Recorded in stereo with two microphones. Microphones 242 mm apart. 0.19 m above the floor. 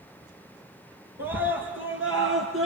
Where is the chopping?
I don't hear chopping.